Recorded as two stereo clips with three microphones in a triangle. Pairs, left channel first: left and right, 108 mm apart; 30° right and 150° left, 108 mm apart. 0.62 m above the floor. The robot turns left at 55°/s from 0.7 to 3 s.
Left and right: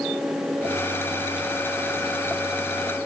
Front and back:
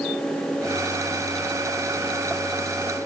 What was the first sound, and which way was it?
Only background noise.